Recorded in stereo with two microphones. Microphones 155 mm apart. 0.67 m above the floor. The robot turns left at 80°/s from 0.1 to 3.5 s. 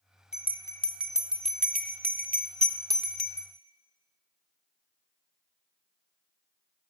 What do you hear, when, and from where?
0.3 s a bell: 45° left (ahead or behind), 0.5 m; by 3.5 s 25° left (ahead or behind), 0.5 m